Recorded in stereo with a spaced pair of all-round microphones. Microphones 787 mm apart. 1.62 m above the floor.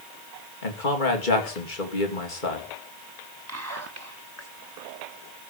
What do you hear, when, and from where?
0.6 s a man speaking: 85° left, 3 m
3.5 s whispering: 20° right (ahead or behind), 2.5 m